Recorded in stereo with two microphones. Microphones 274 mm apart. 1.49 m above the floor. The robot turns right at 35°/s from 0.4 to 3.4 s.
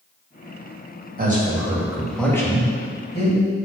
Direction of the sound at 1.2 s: 30° right (ahead or behind).